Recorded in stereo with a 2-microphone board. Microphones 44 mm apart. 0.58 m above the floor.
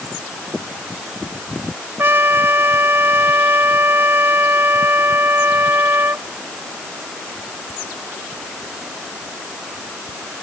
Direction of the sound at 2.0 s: 55° right (ahead or behind).